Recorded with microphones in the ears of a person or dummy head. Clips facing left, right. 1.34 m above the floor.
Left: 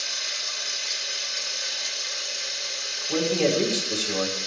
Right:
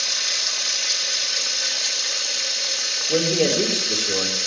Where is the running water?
75° right (ahead or behind), 1.3 m.